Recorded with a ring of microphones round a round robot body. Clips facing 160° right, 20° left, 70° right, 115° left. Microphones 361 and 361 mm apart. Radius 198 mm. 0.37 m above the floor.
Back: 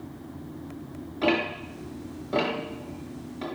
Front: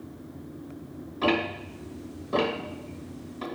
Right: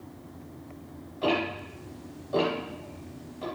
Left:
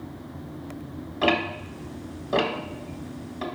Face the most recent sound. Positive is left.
turn(degrees=105)